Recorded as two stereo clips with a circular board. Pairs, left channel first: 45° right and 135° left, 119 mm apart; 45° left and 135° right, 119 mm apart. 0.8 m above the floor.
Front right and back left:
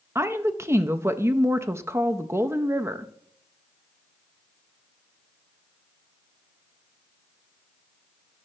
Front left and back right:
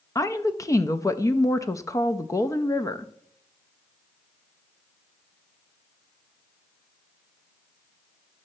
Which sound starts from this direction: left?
A woman speaking, at 0.1 s.